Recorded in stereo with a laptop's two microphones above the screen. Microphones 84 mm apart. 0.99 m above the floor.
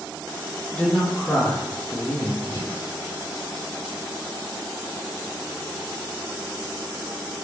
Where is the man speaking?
15° left (ahead or behind), 0.6 m.